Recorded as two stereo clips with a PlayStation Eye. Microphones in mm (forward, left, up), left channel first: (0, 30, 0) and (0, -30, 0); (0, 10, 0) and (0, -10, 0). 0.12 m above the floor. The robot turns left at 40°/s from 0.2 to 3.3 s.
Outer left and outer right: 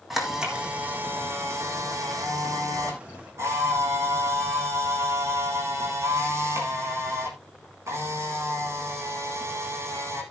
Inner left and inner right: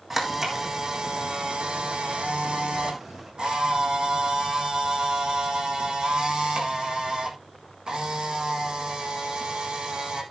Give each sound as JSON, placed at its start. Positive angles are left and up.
{"t": 0.1, "sound": "a camera shutter", "azimuth_deg": 0, "distance_m": 3.5}